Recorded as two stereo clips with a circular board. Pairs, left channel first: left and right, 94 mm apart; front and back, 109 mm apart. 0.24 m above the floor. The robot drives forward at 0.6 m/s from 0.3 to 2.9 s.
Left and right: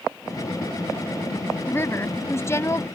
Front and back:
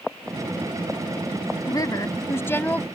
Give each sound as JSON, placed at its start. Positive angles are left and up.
{"t": 1.7, "sound": "a woman speaking", "azimuth_deg": 35}